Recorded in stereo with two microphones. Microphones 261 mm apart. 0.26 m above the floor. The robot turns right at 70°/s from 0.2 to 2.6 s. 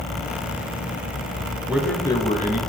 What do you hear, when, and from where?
1.7 s a man speaking: 10° right, 1.8 m; by 2.6 s 55° left, 1.8 m